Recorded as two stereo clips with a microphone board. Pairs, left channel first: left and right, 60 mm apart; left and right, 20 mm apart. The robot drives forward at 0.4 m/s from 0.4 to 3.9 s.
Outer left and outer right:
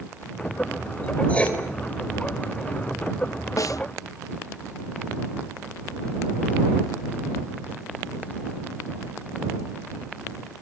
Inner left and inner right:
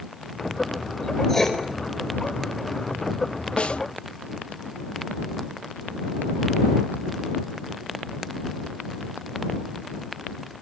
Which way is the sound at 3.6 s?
65° left (ahead or behind).